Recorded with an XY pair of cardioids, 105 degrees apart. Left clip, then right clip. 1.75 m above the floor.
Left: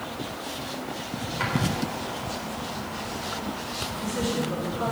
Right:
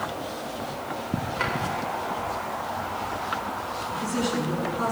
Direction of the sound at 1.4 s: 20° right.